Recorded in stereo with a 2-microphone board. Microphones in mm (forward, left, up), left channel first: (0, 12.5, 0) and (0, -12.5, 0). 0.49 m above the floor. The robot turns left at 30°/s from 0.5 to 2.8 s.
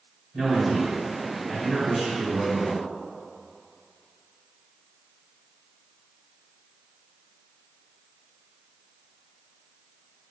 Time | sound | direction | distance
0.3 | a man speaking | 150° right | 2.0 m